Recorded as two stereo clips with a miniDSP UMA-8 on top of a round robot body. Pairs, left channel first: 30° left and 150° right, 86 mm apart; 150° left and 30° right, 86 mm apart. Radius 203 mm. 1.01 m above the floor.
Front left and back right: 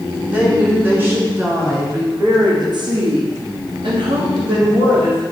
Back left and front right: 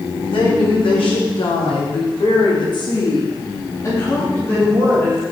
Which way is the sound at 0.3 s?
135° left.